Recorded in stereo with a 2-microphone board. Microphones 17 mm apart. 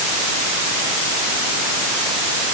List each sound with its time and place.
Only background noise.